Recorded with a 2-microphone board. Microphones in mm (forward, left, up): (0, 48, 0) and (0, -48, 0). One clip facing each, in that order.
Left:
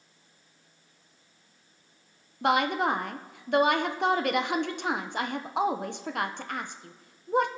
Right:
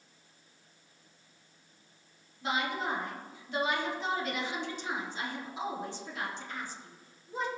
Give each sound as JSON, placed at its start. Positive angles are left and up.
{"t": 2.4, "sound": "a woman speaking", "side_deg": 65, "distance_m": 0.7}